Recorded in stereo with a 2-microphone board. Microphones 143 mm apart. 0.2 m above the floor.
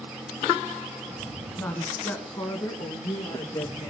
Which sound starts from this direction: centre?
A woman speaking, at 1.6 s.